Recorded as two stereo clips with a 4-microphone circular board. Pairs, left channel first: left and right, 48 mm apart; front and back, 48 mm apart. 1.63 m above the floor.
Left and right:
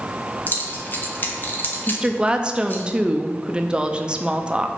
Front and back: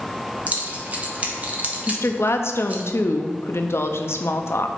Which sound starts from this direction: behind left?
Keys jangling, at 0.5 s.